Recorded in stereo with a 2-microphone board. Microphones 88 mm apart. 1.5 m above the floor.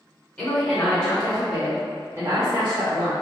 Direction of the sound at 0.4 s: 20° left (ahead or behind).